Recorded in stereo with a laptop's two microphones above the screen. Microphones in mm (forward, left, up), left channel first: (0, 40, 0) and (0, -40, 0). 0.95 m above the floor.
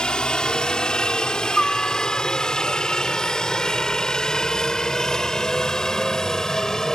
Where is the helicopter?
10° left (ahead or behind); by 7.0 s 5° left (ahead or behind).